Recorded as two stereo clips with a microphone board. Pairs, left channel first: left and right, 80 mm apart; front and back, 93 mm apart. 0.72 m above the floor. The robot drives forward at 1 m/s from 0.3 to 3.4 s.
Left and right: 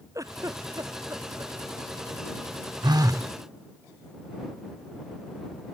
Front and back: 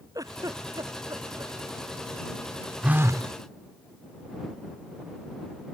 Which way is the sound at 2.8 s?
105° right.